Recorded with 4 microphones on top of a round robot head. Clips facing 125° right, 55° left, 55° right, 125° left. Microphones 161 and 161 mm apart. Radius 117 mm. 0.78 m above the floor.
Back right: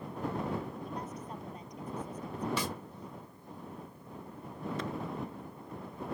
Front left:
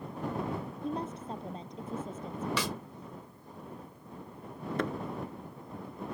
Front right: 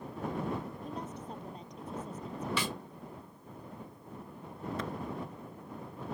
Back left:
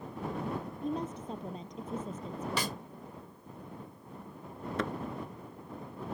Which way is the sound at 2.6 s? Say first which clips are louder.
Front left 1 dB, back left 1 dB; 75° left.